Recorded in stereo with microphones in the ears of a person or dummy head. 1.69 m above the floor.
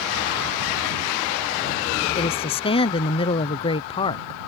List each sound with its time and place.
2.1 s a woman speaking: 30° left (ahead or behind)